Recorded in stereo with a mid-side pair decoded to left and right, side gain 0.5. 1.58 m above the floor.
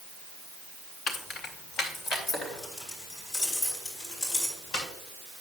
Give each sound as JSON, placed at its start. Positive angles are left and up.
{"t": 1.1, "sound": "keys jangling", "azimuth_deg": 55, "distance_m": 1.8}